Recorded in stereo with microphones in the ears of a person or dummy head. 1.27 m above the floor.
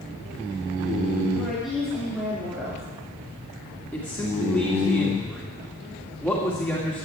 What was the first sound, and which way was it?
A woman speaking, centre (ahead or behind).